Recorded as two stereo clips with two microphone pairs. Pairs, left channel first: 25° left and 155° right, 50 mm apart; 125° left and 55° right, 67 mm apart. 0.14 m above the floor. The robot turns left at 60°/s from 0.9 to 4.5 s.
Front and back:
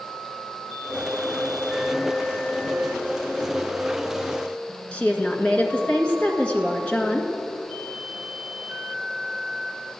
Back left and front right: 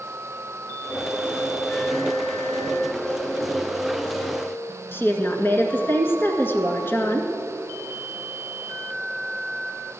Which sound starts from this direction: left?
A woman speaking, at 4.9 s.